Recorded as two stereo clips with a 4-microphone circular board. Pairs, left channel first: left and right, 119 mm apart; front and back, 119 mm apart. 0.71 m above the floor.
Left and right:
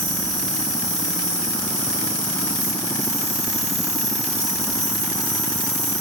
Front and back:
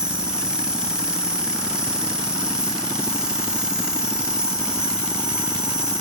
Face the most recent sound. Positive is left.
turn(degrees=-95)